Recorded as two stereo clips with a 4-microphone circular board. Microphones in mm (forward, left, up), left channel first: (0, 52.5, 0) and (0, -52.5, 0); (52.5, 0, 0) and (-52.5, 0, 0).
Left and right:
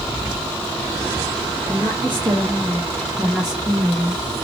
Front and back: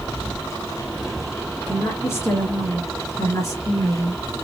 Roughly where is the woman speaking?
Ahead left.